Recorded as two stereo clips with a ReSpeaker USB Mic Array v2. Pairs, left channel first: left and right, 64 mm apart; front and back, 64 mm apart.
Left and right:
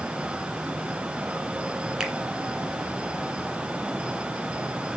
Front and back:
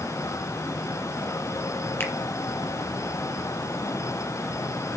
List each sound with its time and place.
2.0 s a finger snap: 20° right, 1.5 m